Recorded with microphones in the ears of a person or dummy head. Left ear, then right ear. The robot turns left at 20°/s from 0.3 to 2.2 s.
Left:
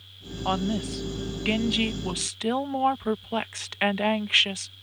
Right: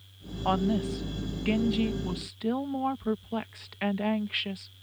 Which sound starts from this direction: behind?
A woman speaking, at 0.5 s.